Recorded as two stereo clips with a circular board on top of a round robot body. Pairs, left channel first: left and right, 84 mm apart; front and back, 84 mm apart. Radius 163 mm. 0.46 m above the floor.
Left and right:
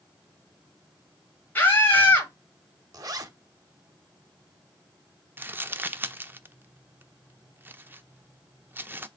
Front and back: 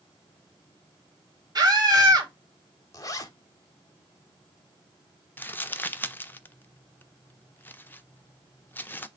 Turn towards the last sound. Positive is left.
turn(degrees=-45)